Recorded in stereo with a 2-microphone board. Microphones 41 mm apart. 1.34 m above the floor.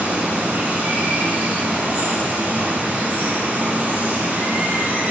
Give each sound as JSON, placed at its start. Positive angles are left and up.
{"t": 0.0, "sound": "running water", "side_deg": -40, "distance_m": 1.6}